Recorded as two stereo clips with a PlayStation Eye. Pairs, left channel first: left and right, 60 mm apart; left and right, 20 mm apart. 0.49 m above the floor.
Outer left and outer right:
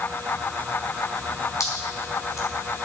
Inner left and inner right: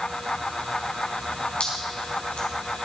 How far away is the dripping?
About 3.5 m.